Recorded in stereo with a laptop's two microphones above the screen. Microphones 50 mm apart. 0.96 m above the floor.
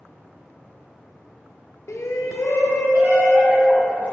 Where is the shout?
70° left (ahead or behind), 0.5 m; by 4.1 s 65° left (ahead or behind), 1.8 m.